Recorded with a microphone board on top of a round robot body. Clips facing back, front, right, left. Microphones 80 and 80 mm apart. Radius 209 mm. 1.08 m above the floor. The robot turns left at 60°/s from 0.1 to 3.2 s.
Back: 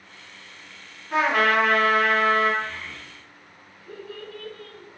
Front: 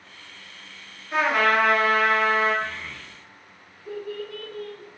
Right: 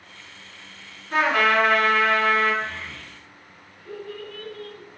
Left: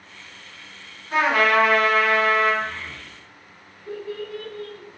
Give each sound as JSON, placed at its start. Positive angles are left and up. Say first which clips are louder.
{"t": 1.1, "sound": "a trumpet", "louder": "even, left 1 dB", "azimuth_deg": 155, "distance_m": 1.1}
{"t": 2.6, "sound": "a child speaking", "louder": "front 1 dB, left 2 dB", "azimuth_deg": 55, "distance_m": 0.8}